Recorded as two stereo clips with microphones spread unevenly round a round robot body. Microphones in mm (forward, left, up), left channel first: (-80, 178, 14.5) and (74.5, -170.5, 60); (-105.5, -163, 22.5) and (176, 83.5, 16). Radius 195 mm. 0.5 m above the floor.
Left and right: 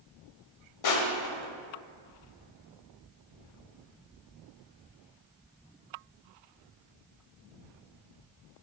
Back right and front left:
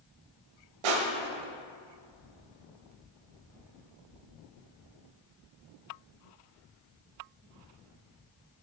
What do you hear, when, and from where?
0.8 s crushing: 70° left, 0.8 m